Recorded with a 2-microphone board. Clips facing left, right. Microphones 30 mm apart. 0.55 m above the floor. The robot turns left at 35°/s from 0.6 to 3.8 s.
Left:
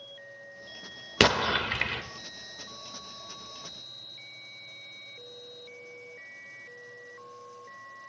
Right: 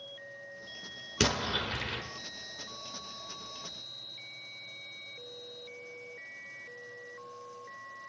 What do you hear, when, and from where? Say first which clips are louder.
1.2 s an explosion: left 7 dB; 50° left (ahead or behind), 0.7 m; by 2.0 s 75° left (ahead or behind), 0.7 m